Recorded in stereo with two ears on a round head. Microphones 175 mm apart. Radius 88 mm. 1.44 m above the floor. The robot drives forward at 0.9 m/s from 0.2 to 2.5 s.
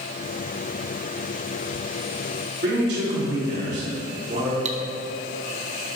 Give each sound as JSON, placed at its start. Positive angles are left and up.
{"t": 2.6, "sound": "a man speaking", "side_deg": -55, "distance_m": 3.5}
{"t": 4.7, "sound": "cutlery clinking", "side_deg": -35, "distance_m": 0.8}